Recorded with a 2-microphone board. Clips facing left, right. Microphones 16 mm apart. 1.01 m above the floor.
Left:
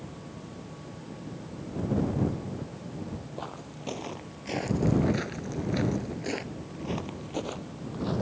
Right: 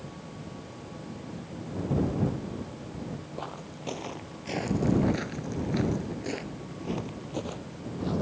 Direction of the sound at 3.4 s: 5° right (ahead or behind).